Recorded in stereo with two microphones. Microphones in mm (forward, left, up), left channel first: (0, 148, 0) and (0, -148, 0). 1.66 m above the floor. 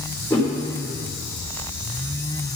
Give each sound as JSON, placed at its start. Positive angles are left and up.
{"t": 0.3, "sound": "a whoosh", "side_deg": 5, "distance_m": 3.0}